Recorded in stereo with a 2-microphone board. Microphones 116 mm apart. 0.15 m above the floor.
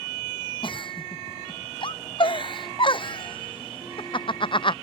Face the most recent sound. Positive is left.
turn(degrees=45)  # may be behind; listen again after turning